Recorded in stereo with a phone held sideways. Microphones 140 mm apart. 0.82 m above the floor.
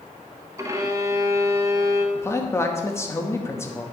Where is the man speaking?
20° left (ahead or behind), 0.8 m.